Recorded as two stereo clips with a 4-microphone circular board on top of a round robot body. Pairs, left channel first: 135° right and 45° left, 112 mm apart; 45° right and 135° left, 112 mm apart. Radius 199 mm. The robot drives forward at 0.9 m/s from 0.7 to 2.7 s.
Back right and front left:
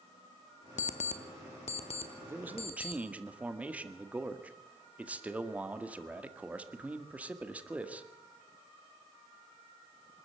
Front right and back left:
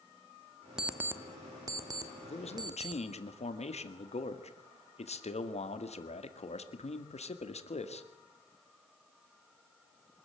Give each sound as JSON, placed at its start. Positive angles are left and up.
{"t": 0.8, "sound": "an alarm clock", "azimuth_deg": -140, "distance_m": 0.6}
{"t": 2.2, "sound": "a man speaking", "azimuth_deg": -25, "distance_m": 2.5}